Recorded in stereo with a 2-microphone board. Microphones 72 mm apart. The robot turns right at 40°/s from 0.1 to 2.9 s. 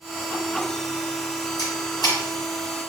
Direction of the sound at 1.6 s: 60° left (ahead or behind).